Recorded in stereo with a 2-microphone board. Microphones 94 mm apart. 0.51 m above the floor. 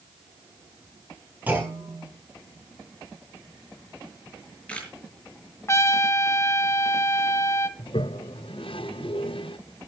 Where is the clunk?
20° right (ahead or behind), 5.5 m.